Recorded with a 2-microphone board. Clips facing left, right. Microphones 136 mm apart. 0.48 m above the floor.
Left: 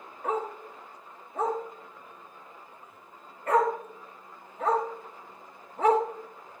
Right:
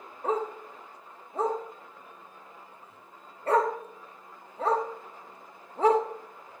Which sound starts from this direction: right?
A dog barking, at 0.2 s.